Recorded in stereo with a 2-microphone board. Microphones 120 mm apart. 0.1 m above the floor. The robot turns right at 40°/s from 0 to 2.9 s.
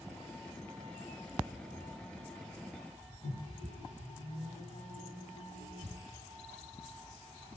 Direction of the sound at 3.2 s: 65° left (ahead or behind).